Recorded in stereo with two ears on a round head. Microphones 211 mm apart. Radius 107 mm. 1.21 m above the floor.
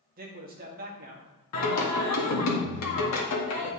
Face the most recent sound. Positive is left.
turn(degrees=70)  # may be behind; listen again after turning